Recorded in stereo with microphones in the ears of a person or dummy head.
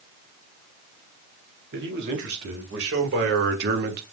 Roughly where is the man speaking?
Right.